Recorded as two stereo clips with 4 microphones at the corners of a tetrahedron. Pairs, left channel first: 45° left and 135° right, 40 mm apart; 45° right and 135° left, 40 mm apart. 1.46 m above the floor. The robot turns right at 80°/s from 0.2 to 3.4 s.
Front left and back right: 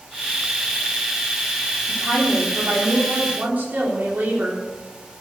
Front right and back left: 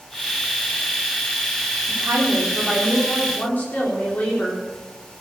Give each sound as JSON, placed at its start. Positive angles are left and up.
{"t": 1.9, "sound": "a woman speaking", "azimuth_deg": 150, "distance_m": 4.5}